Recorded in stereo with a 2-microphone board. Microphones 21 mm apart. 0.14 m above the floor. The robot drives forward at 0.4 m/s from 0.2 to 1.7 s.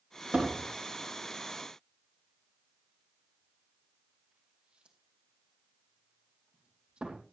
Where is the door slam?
70° right (ahead or behind), 3.5 m; by 7.2 s 60° right (ahead or behind), 4 m.